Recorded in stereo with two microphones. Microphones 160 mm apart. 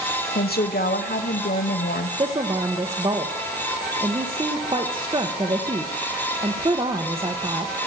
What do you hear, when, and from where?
0.3 s a woman speaking: 75° left (ahead or behind), 1.1 m
2.2 s a woman speaking: 30° right (ahead or behind), 1.0 m